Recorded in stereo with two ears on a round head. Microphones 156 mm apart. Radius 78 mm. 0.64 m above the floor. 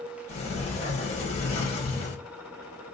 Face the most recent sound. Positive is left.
turn(degrees=40)  # may be behind; listen again after turning